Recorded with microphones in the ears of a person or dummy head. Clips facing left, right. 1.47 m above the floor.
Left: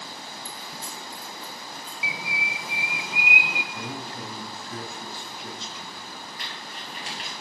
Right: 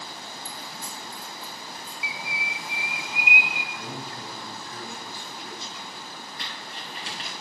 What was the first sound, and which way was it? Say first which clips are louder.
Keys jangling: even; 10° right (ahead or behind).